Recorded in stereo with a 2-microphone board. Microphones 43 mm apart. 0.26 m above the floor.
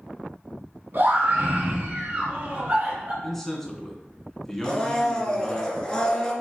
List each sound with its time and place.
0.9 s a scream: 55° right (ahead or behind), 2.5 m; by 3.1 s 35° right (ahead or behind), 4 m
3.2 s a man speaking: 10° left (ahead or behind), 2.5 m
4.6 s a blender: 20° left (ahead or behind), 2 m